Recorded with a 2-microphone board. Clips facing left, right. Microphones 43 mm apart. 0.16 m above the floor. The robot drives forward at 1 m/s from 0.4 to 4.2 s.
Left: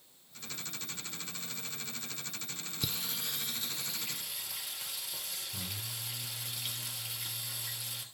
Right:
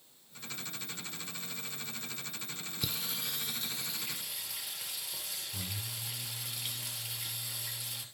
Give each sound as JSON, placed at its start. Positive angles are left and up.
{"t": 2.8, "sound": "singing", "side_deg": 0, "distance_m": 0.9}